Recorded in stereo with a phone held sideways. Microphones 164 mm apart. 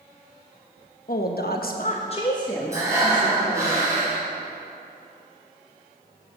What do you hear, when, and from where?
1.1 s a woman speaking: 65° left (ahead or behind), 1.1 m; by 3.7 s centre (ahead or behind), 2.5 m
2.7 s breathing: 20° right (ahead or behind), 4.5 m